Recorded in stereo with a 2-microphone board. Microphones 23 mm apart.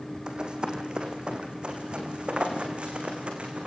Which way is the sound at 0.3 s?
35° right (ahead or behind).